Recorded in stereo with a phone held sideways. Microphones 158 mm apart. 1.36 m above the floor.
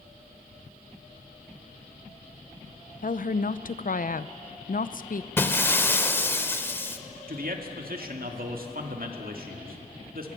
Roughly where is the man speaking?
Right.